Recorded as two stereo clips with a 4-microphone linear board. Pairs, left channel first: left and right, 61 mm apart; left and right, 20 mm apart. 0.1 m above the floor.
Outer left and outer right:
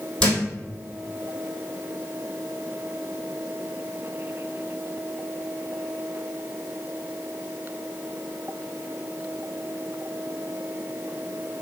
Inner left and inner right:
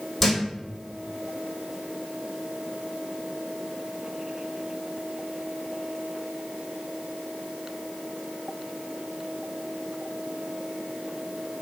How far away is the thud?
About 1.4 m.